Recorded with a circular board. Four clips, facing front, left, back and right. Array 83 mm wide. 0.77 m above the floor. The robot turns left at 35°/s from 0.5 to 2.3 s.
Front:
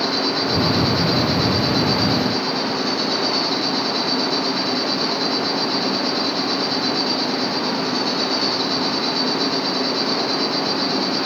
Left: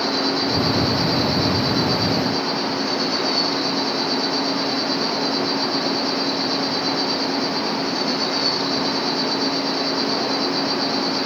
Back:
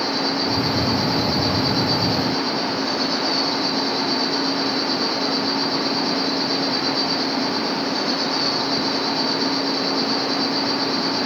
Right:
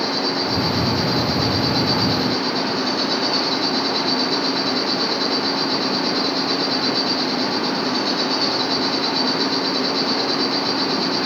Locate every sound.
0.0 s an insect: 10° left, 3.5 m; by 11.3 s 55° right, 3.5 m